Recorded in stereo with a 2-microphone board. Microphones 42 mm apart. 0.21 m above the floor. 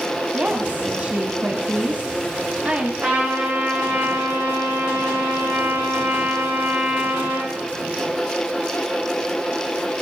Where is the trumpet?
45° right (ahead or behind), 7 m.